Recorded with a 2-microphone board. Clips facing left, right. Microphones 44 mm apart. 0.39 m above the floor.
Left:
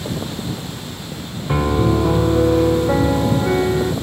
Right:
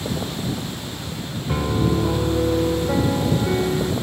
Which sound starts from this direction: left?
A piano, at 1.5 s.